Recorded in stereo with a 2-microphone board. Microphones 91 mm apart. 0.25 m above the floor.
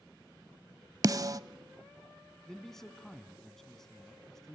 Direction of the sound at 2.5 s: 5° left (ahead or behind).